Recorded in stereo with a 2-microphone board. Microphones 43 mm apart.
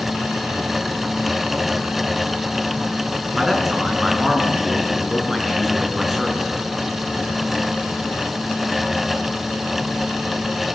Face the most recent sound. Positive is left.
turn(degrees=-5)  # may be behind; listen again after turning